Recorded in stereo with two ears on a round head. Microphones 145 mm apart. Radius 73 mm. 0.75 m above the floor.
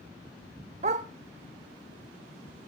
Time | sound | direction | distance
0.8 | a dog barking | 45° right (ahead or behind) | 0.9 m